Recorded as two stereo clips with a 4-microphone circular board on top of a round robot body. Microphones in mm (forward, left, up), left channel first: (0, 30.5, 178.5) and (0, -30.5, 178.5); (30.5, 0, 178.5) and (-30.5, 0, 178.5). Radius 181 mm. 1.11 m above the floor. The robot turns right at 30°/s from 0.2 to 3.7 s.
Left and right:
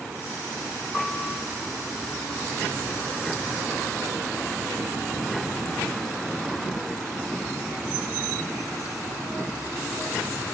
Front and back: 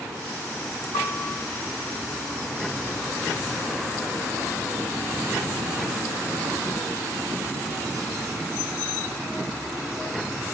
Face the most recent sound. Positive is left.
turn(degrees=90)